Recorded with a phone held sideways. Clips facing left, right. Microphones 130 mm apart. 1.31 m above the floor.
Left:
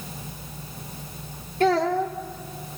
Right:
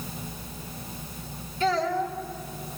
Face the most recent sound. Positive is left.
turn(degrees=55)  # may be behind; listen again after turning